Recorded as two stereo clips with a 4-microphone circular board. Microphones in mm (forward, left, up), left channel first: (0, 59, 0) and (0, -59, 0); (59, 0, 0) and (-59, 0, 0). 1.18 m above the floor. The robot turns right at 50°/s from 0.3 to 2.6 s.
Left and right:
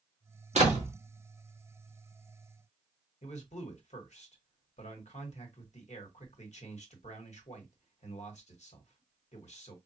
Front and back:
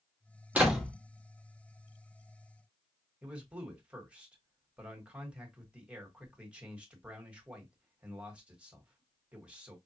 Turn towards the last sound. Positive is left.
turn(degrees=100)